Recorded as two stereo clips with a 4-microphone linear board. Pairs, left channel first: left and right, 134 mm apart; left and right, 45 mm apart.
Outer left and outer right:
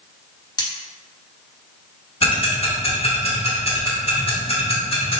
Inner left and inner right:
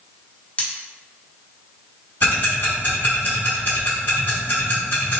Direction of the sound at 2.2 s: 45° left (ahead or behind).